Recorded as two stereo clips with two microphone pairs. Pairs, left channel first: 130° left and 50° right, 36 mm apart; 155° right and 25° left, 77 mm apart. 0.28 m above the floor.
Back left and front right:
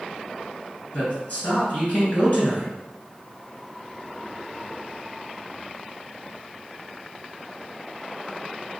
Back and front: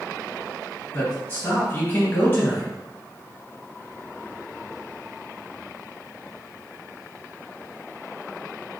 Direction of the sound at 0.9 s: 160° left.